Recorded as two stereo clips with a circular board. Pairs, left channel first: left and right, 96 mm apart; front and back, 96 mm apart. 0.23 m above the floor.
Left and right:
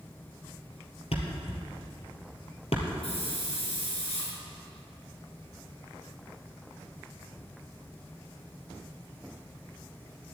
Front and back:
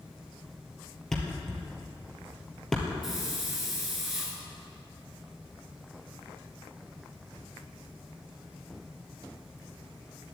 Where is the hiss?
95° left, 4 m.